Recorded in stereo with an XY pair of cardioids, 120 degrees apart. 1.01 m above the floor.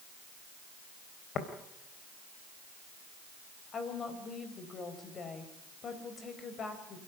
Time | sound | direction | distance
1.4 | tapping | 50° left | 3.5 m
3.7 | a woman speaking | 40° left | 5 m